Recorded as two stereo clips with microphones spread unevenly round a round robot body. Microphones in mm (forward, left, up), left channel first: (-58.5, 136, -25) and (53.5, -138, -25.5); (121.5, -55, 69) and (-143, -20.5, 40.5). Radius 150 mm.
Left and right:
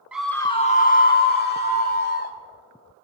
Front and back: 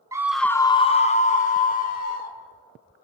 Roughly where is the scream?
Behind right.